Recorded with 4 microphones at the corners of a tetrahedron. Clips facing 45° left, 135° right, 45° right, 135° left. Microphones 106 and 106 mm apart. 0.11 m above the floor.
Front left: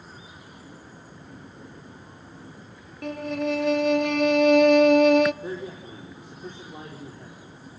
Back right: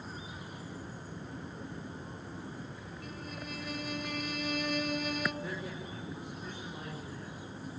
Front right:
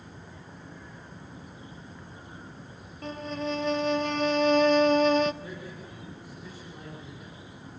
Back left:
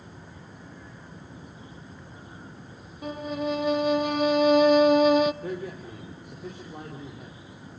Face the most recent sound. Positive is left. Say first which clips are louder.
# front left 6 dB, back left 7 dB
turn(degrees=105)